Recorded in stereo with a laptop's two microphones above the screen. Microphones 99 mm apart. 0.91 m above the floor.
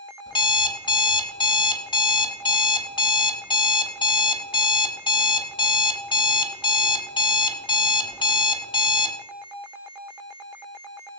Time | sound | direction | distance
0.3 | an alarm clock | 50° left (ahead or behind) | 0.8 m